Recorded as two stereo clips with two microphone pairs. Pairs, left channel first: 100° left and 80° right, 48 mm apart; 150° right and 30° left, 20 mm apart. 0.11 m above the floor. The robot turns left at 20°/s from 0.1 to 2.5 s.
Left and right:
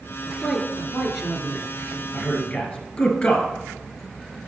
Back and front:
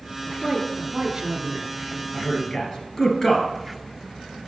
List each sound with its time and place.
0.3 s a man speaking: 10° left, 1.4 m; by 2.0 s 25° right, 1.4 m
2.1 s a man speaking: 170° left, 2 m; by 3.5 s 160° left, 2 m